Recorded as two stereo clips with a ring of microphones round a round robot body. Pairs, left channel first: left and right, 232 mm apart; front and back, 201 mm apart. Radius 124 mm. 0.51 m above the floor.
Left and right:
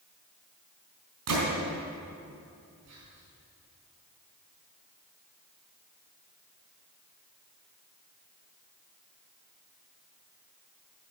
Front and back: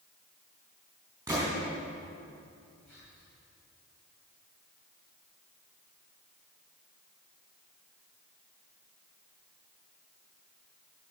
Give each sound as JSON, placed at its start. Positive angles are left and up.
{"t": 1.3, "sound": "a gunshot", "azimuth_deg": -100, "distance_m": 4.5}
{"t": 2.9, "sound": "whispering", "azimuth_deg": -85, "distance_m": 3.0}